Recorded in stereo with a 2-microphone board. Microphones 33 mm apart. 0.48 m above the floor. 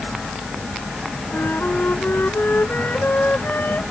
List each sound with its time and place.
1.3 s a flute: 80° left